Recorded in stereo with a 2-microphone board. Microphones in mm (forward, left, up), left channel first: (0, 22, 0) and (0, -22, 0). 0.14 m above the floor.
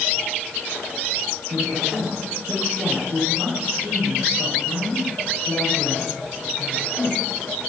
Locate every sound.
1.5 s a woman speaking: 65° right (ahead or behind), 5 m